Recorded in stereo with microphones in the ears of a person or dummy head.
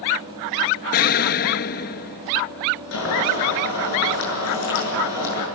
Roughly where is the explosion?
Left.